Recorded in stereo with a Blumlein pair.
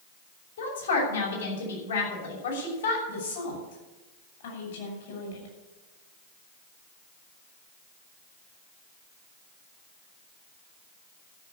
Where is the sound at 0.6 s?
65° left, 6.5 m.